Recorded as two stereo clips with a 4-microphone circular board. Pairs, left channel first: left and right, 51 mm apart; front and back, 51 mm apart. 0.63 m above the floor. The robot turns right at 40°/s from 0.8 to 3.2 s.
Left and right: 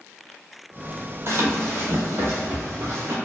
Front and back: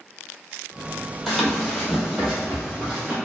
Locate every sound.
1.3 s running footsteps: 95° right, 0.9 m